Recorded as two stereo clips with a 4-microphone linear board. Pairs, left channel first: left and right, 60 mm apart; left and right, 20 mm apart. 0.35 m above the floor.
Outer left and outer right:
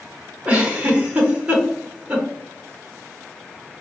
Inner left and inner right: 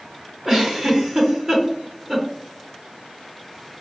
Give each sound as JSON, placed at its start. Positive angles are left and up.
{"t": 0.5, "sound": "a giggle", "side_deg": -20, "distance_m": 0.9}